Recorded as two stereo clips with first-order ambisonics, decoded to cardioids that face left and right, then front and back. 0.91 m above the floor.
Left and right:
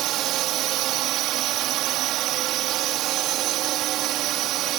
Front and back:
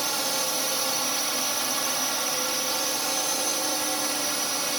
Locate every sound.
0.0 s a drone: 100° right